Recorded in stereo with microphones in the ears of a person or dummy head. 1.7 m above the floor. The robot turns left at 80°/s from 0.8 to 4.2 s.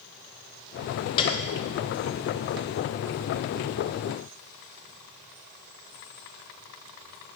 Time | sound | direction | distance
1.2 | a piano | 25° left (ahead or behind) | 0.9 m